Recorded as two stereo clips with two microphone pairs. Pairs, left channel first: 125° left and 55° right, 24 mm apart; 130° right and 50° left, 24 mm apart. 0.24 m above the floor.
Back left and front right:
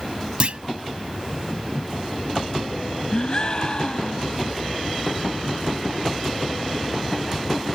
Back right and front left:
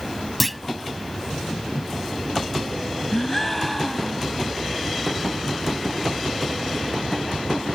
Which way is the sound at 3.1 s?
145° left.